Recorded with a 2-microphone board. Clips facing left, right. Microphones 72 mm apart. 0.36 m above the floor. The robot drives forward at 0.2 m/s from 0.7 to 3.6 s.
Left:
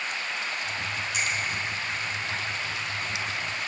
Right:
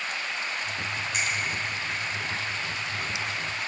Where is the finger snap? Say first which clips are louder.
Even; 55° right (ahead or behind), 1.9 m.